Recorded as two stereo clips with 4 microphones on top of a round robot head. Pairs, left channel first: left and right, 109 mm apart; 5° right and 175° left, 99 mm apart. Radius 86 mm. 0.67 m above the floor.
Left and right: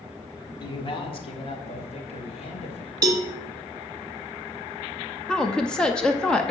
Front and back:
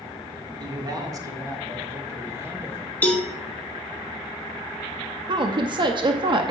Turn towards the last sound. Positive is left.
turn(degrees=170)